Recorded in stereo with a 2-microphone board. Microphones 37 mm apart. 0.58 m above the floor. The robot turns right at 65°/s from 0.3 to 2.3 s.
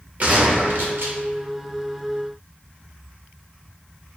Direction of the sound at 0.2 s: 135° right.